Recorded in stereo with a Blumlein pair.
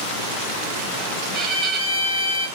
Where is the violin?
35° right, 1.4 m.